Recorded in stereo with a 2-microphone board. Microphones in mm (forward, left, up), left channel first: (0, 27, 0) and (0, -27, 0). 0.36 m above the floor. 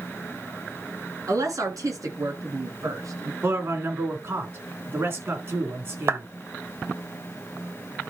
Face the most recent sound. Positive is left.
turn(degrees=-50)  # may be behind; listen again after turning